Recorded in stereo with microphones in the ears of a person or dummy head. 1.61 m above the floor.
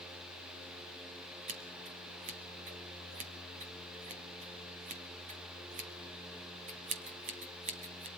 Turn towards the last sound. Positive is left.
turn(degrees=-40)  # may be behind; listen again after turning